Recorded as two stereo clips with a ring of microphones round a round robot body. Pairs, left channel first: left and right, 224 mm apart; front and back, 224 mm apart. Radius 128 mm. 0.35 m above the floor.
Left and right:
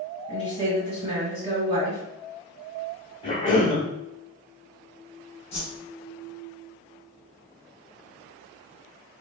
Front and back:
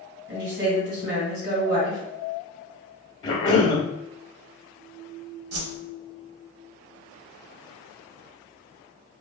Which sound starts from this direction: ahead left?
A cough, at 3.2 s.